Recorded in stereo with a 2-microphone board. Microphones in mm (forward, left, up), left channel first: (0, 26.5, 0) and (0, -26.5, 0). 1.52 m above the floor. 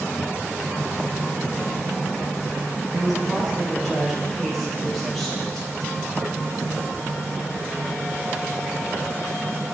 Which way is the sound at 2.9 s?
Centre (ahead or behind).